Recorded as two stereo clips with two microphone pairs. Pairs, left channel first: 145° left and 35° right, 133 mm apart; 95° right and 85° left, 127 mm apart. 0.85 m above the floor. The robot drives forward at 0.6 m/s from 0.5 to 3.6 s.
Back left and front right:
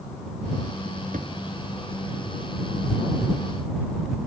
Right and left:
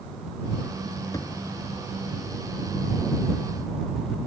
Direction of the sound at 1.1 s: 35° right.